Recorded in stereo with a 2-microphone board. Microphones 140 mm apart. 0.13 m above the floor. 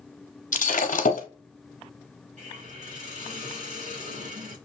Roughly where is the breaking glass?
Left.